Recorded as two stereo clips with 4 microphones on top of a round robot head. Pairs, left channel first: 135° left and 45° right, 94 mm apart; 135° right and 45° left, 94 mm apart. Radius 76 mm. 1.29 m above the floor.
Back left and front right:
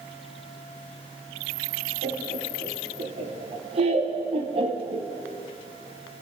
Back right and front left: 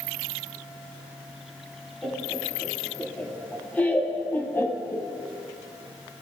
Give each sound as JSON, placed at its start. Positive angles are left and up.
{"t": 2.0, "sound": "laughter", "azimuth_deg": -55, "distance_m": 4.5}